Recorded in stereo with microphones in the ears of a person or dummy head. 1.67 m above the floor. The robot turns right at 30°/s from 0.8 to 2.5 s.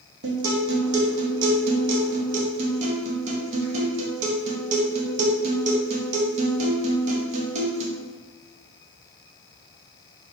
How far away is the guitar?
About 0.7 m.